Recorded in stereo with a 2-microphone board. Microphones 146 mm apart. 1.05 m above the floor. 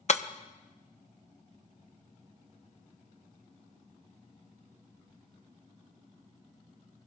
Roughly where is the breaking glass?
Left.